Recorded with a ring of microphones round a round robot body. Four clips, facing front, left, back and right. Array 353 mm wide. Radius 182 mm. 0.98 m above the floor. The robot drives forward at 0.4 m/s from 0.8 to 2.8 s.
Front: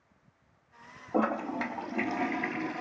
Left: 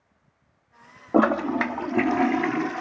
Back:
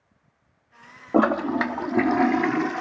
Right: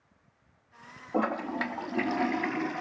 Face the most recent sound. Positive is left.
turn(degrees=155)